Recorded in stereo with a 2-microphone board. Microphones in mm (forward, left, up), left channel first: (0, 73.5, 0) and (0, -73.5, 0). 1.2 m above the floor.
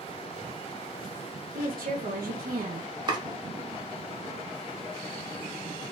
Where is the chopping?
30° right (ahead or behind), 0.8 m.